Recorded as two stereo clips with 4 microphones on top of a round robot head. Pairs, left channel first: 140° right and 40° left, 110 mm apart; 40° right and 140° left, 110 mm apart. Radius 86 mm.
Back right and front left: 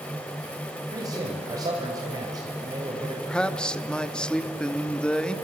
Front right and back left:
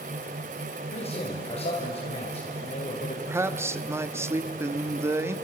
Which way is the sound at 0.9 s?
15° right.